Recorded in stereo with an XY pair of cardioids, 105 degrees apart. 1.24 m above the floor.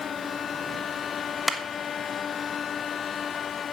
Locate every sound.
1.5 s a clap: 15° left, 1.4 m